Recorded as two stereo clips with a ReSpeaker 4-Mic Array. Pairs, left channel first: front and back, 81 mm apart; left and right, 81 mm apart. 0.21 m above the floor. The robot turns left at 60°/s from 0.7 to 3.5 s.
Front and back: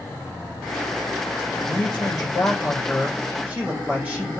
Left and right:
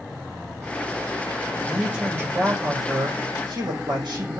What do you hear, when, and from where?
1.7 s a man speaking: straight ahead, 7.5 m; by 4.4 s 110° right, 7.5 m